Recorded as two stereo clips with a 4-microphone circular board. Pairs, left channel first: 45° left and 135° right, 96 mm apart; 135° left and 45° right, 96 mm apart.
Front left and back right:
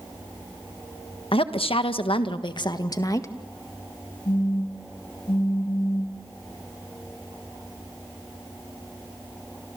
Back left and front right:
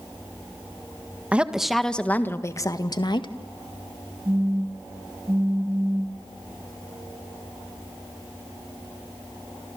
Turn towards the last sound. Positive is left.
turn(degrees=15)